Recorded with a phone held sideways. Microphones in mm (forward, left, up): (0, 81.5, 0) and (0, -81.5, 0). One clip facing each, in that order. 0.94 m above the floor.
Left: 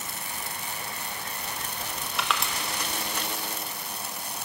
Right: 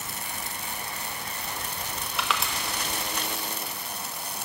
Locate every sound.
2.2 s crushing: centre (ahead or behind), 0.5 m